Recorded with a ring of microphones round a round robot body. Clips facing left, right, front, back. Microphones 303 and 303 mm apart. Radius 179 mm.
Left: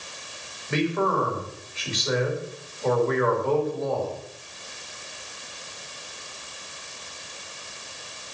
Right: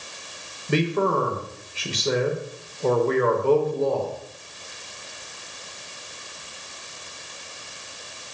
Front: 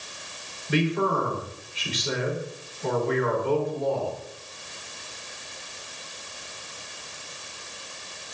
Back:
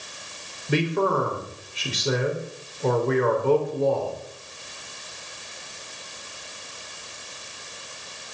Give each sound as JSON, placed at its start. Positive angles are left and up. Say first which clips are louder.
{"t": 0.7, "sound": "a man speaking", "louder": "right 2 dB, back 1 dB", "azimuth_deg": -140, "distance_m": 4.0}